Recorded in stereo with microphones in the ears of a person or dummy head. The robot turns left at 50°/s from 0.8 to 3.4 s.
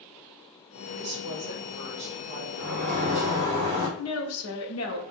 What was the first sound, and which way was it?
A woman speaking, 55° right.